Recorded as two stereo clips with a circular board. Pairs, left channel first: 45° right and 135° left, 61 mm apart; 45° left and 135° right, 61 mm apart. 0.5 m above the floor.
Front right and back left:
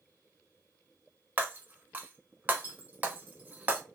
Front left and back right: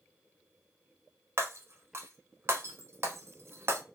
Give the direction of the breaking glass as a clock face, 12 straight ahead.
6 o'clock.